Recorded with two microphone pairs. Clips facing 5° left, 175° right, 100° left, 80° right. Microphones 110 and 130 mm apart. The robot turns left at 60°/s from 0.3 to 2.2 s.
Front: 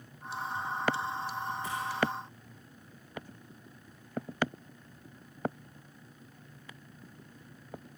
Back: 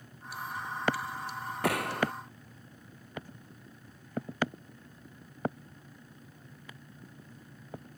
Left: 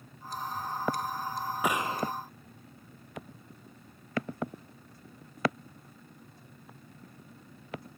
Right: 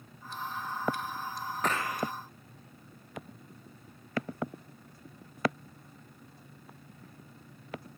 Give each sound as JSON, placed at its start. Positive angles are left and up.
{"t": 1.6, "sound": "a gunshot", "azimuth_deg": 180}